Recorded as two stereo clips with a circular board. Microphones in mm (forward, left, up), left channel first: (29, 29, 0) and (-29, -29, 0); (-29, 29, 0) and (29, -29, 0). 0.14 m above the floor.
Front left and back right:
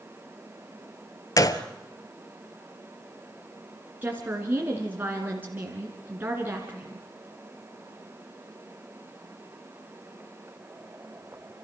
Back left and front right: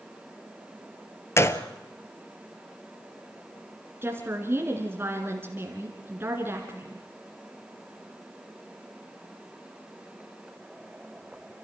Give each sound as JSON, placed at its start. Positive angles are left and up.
{"t": 1.4, "sound": "a gunshot", "azimuth_deg": 85, "distance_m": 0.9}
{"t": 4.0, "sound": "a woman speaking", "azimuth_deg": -85, "distance_m": 2.0}